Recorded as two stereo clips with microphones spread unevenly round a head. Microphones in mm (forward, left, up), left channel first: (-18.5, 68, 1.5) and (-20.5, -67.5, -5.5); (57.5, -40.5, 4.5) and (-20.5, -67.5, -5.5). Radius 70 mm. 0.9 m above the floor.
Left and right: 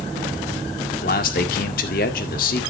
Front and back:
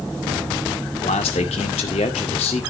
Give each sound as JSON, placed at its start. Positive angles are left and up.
{"t": 1.0, "sound": "a man speaking", "azimuth_deg": 55, "distance_m": 1.9}